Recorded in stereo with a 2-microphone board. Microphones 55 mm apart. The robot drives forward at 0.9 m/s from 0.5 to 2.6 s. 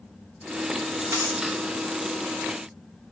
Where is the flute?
I don't hear a flute.